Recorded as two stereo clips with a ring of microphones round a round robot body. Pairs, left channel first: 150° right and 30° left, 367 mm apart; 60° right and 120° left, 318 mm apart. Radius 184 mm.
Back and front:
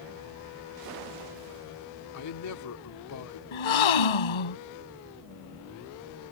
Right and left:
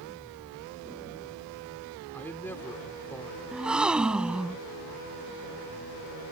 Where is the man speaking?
140° right.